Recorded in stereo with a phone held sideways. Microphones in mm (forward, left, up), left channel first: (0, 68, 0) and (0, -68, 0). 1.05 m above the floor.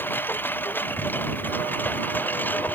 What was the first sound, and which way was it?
A lawn mower, 15° left (ahead or behind).